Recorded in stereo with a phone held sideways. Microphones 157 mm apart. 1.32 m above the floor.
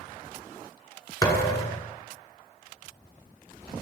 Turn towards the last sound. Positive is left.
turn(degrees=20)  # may be behind; listen again after turning